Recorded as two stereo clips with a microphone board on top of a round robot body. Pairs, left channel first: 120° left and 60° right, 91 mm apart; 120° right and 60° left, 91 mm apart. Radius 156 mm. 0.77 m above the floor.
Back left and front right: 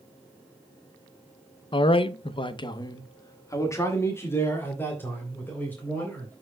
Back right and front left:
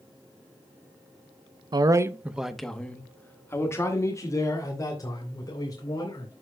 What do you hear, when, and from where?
1.7 s a man speaking: 95° left, 0.8 m; by 6.3 s 170° right, 4 m